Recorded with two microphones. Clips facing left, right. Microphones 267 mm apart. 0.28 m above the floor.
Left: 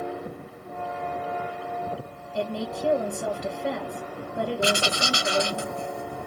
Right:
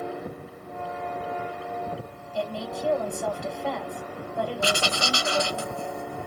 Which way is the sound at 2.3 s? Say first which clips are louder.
Left 2 dB; 20° left (ahead or behind).